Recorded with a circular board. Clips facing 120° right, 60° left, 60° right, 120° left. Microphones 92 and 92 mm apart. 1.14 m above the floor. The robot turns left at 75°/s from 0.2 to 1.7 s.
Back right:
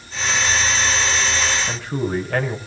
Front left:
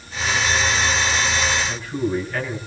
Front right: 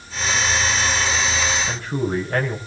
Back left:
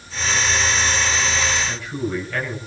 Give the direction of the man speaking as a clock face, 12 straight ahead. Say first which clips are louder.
Even, front right 2 dB; 4 o'clock.